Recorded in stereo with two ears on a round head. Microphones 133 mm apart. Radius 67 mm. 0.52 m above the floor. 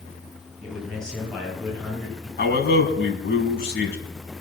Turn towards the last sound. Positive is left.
turn(degrees=70)  # may be behind; listen again after turning